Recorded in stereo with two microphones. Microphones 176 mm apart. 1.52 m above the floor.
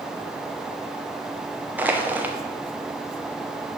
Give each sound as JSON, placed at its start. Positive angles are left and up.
{"t": 1.8, "sound": "crushing", "side_deg": -10, "distance_m": 0.6}